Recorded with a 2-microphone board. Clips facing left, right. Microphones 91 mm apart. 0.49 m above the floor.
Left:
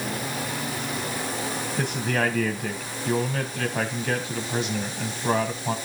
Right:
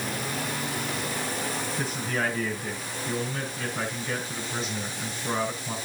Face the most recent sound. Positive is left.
turn(degrees=70)  # may be behind; listen again after turning